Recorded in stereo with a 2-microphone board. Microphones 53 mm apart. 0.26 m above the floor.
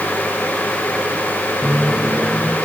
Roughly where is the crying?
No crying in this recording.